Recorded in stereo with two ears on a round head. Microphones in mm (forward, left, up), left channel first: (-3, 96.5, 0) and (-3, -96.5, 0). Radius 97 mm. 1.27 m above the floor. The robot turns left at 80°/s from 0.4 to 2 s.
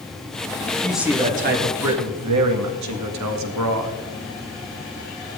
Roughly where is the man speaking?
Ahead.